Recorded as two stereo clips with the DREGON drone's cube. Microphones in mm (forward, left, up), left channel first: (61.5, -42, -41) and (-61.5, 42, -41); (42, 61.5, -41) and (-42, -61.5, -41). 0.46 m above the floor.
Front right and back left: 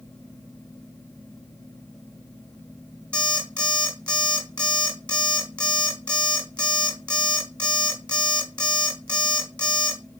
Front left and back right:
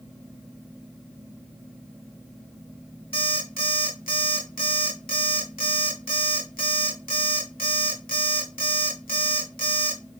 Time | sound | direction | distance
3.1 | an alarm clock | 45° left | 1.9 m